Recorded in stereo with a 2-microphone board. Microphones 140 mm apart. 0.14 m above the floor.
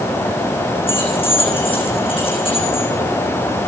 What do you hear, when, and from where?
0.9 s keys jangling: 40° left (ahead or behind), 6 m